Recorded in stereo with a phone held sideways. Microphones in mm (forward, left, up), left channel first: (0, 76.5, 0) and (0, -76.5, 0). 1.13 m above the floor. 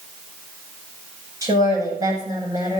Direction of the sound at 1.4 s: 20° right (ahead or behind).